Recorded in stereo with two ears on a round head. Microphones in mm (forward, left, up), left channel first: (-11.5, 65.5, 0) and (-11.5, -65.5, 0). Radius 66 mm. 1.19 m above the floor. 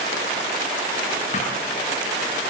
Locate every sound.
1.3 s a thud: 45° left (ahead or behind), 8 m